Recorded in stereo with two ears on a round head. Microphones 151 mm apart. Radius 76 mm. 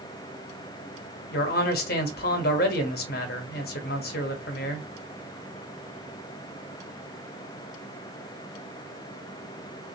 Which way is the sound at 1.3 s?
60° left (ahead or behind).